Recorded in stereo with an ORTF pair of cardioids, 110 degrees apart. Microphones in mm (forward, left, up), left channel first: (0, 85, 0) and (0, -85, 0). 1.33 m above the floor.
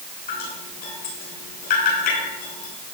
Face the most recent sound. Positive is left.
turn(degrees=60)